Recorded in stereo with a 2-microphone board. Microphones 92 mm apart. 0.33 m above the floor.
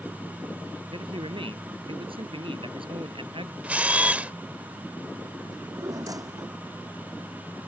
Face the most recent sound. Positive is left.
turn(degrees=-40)  # may be behind; listen again after turning